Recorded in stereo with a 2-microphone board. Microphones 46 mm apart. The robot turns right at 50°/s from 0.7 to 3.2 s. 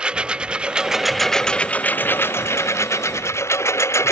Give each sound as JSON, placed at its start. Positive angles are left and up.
{"t": 0.0, "sound": "a lawn mower", "side_deg": -20}